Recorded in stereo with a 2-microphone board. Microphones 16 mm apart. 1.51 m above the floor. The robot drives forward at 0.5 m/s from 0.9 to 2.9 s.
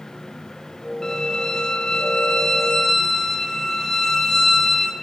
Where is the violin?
30° left (ahead or behind), 0.7 m; by 4.9 s 25° left (ahead or behind), 0.8 m.